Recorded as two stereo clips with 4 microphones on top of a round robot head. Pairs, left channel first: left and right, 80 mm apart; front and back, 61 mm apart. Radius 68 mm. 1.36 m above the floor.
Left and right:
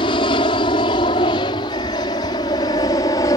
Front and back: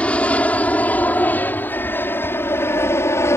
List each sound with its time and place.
0.0 s an aircraft: 70° left; by 3.4 s 40° left